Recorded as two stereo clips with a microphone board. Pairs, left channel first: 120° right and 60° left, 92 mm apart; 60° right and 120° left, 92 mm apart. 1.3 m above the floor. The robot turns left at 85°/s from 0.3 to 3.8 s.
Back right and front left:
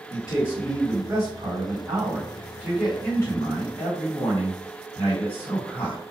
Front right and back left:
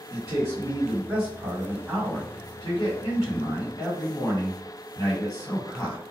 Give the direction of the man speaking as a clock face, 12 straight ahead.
6 o'clock.